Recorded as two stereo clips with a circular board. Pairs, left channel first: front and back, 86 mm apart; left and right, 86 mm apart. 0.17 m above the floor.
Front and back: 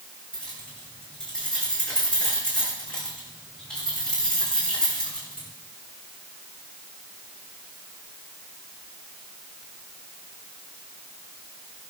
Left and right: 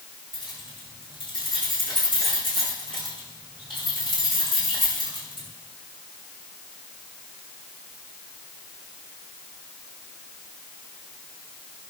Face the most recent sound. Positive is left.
turn(degrees=80)